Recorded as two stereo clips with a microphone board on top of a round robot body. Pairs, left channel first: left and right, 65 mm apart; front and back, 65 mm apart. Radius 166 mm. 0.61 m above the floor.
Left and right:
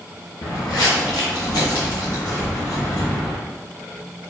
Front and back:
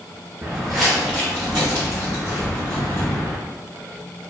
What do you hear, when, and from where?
0.4 s footsteps: 110° left, 0.8 m; by 3.4 s 50° left, 3 m